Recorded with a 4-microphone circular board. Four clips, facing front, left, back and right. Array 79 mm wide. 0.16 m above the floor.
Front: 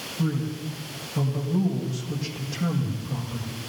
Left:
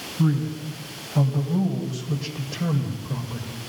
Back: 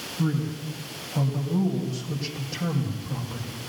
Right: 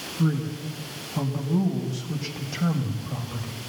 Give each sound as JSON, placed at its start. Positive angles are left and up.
{"t": 0.2, "sound": "a man speaking", "azimuth_deg": 90, "distance_m": 7.5}